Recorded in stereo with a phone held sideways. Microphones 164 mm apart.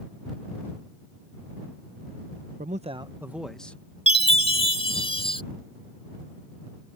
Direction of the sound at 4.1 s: 35° left (ahead or behind).